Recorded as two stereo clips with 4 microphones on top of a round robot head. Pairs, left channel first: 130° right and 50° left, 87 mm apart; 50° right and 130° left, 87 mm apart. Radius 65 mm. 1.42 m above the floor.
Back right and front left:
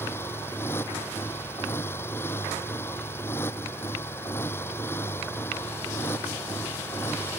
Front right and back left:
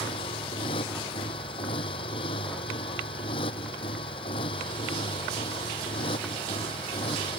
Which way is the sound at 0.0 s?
70° right.